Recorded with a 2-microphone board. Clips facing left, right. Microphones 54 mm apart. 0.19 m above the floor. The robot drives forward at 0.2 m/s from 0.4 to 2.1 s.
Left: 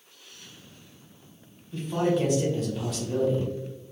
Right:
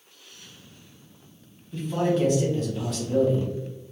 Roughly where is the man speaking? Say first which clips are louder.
Right 1 dB; centre.